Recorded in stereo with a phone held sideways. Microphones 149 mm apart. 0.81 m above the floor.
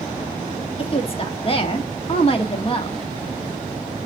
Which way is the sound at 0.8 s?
40° left (ahead or behind).